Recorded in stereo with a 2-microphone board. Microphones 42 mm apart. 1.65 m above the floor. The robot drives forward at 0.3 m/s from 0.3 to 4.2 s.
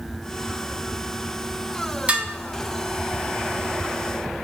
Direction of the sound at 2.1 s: 30° right (ahead or behind).